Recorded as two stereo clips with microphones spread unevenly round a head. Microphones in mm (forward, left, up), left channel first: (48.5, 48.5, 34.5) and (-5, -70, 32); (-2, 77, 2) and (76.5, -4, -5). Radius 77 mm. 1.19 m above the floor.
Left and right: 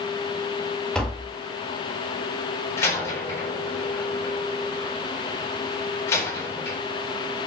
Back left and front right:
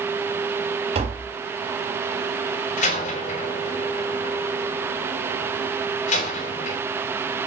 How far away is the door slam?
About 4 m.